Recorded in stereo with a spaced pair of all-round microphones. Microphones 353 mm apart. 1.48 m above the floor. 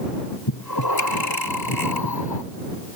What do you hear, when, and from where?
0.5 s breathing: 85° left